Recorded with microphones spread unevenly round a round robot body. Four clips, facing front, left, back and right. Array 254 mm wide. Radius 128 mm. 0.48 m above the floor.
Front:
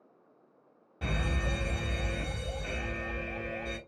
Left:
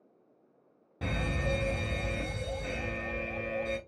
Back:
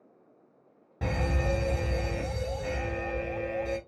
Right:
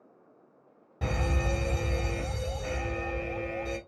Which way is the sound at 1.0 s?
175° right.